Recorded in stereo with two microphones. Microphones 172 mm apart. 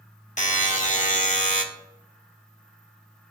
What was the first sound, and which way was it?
A buzzer, 45° left (ahead or behind).